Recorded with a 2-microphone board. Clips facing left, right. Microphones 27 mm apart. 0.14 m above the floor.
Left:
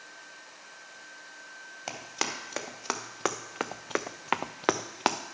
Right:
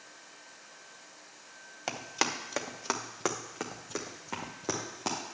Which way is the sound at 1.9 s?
10° right (ahead or behind).